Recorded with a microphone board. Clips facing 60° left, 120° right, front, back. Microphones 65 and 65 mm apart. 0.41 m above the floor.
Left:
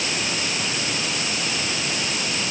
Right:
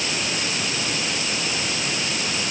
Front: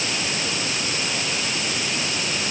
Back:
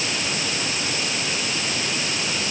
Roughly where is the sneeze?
I don't hear a sneeze.